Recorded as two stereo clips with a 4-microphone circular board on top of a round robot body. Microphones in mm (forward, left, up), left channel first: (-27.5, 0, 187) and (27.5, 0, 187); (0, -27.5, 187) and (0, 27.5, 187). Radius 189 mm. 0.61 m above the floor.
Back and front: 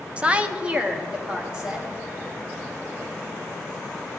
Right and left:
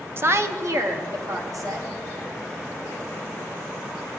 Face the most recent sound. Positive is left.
turn(degrees=70)